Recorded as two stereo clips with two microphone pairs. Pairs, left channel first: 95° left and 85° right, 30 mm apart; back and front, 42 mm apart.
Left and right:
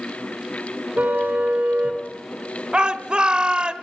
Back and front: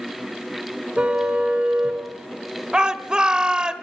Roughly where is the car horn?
Ahead right.